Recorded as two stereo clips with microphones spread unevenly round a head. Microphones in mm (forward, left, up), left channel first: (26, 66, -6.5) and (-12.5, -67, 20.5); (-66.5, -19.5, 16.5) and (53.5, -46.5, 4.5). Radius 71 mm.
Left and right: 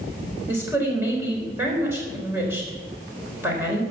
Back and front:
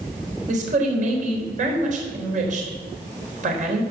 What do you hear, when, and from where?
0.5 s a woman speaking: 35° right, 4 m